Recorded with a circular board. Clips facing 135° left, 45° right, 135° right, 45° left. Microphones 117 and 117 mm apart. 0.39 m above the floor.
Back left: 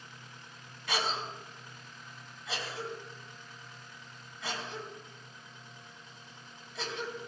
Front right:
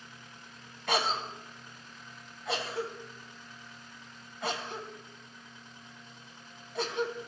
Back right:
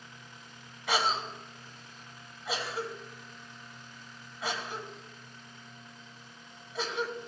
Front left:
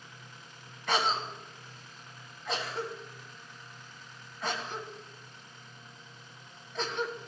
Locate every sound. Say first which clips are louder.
0.9 s a cough: front right 4 dB, even; 55° right, 2.5 m